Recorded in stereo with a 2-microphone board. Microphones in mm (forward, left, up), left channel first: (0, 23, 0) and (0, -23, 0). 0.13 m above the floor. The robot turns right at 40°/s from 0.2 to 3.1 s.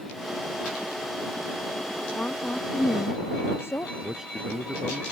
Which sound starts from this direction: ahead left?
A woman speaking, at 2.1 s.